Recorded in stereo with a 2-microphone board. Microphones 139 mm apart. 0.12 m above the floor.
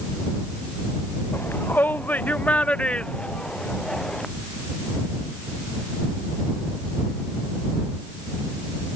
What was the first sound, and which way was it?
A shout, 15° left (ahead or behind).